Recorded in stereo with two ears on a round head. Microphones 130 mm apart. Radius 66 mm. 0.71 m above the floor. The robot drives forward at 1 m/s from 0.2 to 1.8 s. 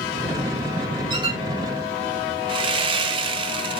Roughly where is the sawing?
Right.